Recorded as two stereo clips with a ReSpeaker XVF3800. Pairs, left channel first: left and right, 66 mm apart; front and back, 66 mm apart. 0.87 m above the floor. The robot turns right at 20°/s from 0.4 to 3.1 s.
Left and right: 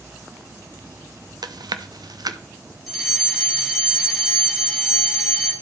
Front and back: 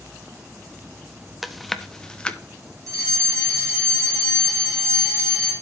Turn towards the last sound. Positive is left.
turn(degrees=-170)